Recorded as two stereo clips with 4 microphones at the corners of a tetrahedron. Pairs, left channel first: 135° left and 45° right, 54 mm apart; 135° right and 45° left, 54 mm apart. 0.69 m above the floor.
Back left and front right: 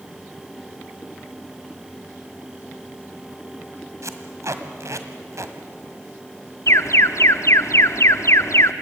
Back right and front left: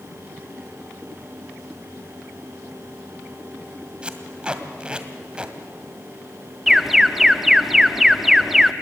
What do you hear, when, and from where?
4.0 s tape being pulled: 25° right, 1.8 m
6.7 s an alarm: 130° left, 0.8 m